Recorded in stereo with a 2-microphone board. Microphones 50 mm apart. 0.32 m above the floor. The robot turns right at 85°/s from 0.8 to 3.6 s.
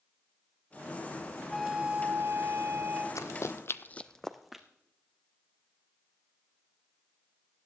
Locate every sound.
1.5 s a flute: 175° left, 2.5 m; by 3.0 s 50° right, 2.5 m
3.1 s running footsteps: 75° left (ahead or behind), 0.9 m; by 4.6 s 5° right (ahead or behind), 1.4 m